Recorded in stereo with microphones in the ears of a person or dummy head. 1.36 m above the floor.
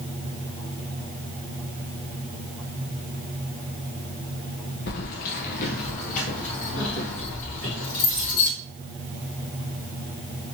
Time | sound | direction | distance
4.9 | keys jangling | 45° left (ahead or behind) | 0.6 m